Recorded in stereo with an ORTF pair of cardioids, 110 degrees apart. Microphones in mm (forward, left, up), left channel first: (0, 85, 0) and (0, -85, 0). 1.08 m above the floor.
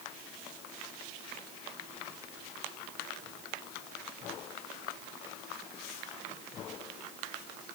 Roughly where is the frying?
No frying in this recording.